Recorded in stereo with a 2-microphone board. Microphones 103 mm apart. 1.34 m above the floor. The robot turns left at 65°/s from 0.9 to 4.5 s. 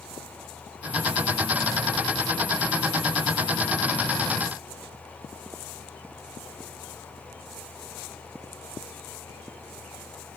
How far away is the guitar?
No guitar in this recording.